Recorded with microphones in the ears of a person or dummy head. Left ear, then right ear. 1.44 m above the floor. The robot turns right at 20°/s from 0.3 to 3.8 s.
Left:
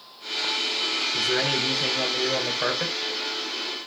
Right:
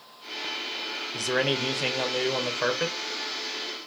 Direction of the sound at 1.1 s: 50° right.